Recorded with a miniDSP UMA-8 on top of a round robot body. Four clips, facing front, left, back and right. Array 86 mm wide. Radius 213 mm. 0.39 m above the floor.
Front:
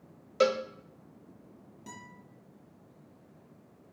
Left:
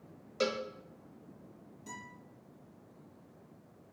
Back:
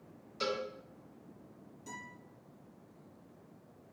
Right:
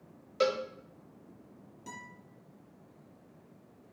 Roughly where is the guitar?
Ahead right.